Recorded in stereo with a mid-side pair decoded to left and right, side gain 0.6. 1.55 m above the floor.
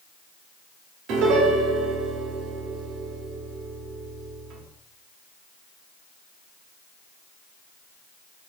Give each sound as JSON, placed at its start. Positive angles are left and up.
{"t": 1.1, "sound": "a piano", "azimuth_deg": -65, "distance_m": 0.9}